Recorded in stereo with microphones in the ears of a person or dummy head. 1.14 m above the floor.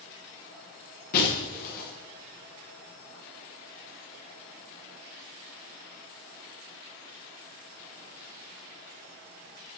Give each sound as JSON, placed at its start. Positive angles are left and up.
{"t": 1.1, "sound": "breaking glass", "side_deg": 55, "distance_m": 8.0}